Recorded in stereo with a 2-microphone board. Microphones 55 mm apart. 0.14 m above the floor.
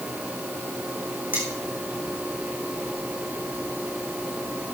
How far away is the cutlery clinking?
About 6 m.